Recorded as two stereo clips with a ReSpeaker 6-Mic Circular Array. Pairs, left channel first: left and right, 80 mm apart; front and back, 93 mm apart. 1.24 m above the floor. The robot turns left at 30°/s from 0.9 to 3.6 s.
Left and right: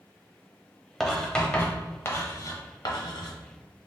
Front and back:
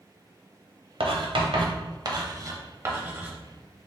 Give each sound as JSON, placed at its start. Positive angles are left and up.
{"t": 1.0, "sound": "writing", "azimuth_deg": 180, "distance_m": 0.8}